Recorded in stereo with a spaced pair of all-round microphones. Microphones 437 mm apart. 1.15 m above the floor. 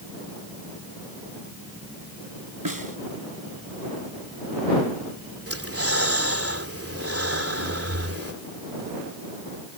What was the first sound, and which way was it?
A snare drum, 50° right (ahead or behind).